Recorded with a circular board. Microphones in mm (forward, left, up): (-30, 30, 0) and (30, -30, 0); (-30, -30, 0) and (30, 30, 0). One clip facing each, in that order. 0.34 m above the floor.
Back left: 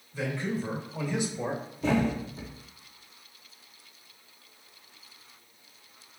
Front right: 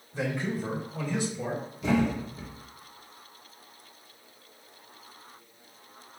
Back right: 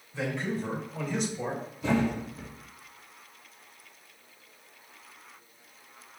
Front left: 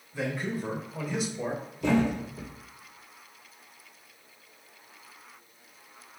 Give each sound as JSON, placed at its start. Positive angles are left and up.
{"t": 0.1, "sound": "a man speaking", "azimuth_deg": -25, "distance_m": 0.9}
{"t": 1.8, "sound": "a thud", "azimuth_deg": 75, "distance_m": 2.0}